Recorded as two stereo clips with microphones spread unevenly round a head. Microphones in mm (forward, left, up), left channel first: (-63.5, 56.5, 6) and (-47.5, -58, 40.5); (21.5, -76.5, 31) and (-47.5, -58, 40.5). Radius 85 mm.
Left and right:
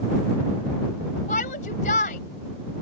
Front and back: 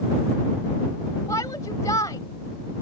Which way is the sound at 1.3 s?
55° left.